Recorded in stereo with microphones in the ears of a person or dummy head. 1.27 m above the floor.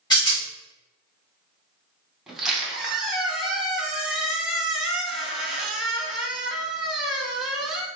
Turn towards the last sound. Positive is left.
turn(degrees=-5)  # may be behind; listen again after turning